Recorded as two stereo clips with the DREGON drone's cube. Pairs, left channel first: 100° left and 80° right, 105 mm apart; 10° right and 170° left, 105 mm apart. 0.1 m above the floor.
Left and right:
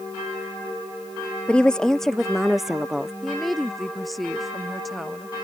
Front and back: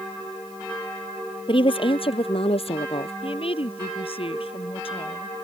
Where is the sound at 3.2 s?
10° left.